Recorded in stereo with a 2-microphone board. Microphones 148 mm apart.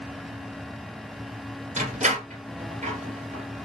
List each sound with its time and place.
1.8 s a door slam: 55° right (ahead or behind), 1.8 m